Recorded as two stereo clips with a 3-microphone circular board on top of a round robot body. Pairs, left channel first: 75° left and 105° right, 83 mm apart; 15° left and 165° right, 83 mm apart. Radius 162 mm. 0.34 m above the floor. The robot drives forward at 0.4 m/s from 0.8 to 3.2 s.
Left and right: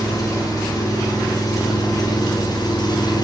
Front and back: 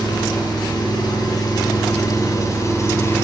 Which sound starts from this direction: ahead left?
An engine running, at 0.0 s.